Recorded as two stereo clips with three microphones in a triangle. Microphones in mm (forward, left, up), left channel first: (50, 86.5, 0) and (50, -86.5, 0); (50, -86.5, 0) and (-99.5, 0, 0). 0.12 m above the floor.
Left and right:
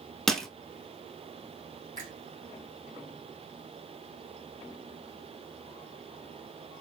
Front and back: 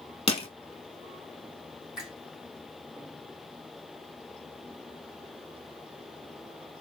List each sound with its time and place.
0.3 s crushing: 5° left, 0.8 m
2.0 s a finger snap: 125° right, 3 m